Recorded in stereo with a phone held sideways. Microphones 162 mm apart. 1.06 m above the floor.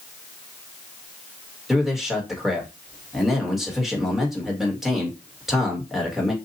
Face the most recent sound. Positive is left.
turn(degrees=0)  # may be behind; listen again after turning